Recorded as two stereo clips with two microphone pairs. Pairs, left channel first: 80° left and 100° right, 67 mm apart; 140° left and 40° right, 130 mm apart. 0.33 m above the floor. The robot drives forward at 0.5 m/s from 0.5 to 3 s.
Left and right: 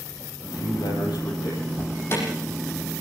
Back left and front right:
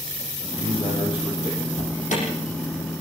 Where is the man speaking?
90° left, 9.5 m.